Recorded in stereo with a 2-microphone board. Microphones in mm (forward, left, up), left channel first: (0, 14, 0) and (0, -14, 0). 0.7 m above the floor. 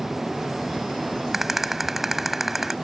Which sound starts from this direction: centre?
A rattle, at 1.3 s.